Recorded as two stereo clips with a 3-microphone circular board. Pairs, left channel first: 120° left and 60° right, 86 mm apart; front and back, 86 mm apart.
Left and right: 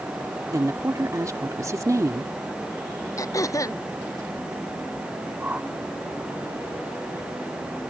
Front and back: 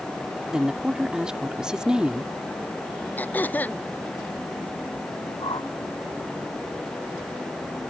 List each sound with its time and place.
0.5 s a woman speaking: 100° right
3.2 s throat clearing: 70° left
5.4 s a whoosh: 10° left